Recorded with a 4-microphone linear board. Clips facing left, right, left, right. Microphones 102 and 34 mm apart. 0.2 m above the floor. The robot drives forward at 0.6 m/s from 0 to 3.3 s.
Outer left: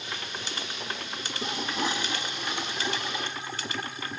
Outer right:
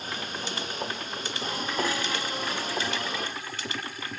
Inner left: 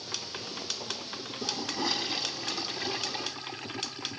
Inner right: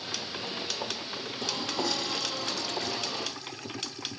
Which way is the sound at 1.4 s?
20° left (ahead or behind).